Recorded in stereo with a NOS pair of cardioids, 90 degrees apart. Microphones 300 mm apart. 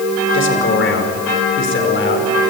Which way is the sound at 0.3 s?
40° left.